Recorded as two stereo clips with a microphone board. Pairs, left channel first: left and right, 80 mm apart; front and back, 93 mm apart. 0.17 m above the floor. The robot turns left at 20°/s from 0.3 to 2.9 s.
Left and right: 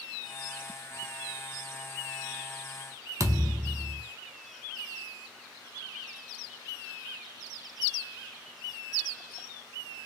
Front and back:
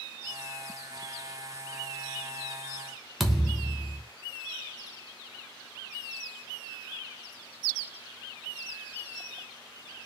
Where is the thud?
90° right, 0.6 m.